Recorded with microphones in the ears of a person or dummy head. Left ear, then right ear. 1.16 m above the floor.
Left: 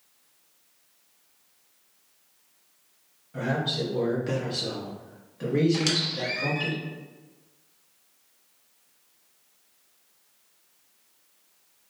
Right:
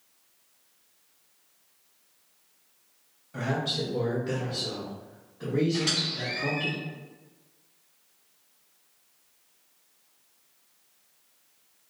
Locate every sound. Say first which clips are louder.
3.3 s a man speaking: left 1 dB; 20° right (ahead or behind), 0.7 m; by 6.7 s 70° left (ahead or behind), 1.4 m
5.7 s a squeak: left 1 dB; 85° left, 1.3 m